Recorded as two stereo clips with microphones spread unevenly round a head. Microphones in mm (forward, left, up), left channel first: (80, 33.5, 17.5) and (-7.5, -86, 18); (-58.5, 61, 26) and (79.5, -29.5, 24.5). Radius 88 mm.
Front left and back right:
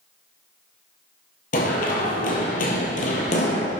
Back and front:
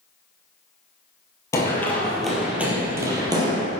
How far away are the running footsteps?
About 2 m.